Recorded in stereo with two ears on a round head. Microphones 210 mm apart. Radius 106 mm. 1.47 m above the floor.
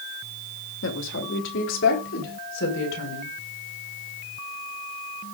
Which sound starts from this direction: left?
A woman speaking, at 0.8 s.